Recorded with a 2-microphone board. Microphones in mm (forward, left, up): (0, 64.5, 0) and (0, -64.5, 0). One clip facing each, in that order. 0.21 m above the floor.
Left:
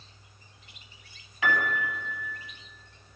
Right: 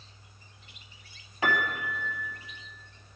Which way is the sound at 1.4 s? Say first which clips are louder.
Left 1 dB; 35° right (ahead or behind).